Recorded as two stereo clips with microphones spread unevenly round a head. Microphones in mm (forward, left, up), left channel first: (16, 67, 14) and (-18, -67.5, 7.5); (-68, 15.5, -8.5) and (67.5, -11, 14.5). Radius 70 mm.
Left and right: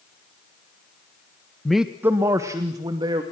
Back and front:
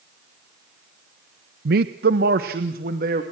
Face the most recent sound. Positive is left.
turn(degrees=-45)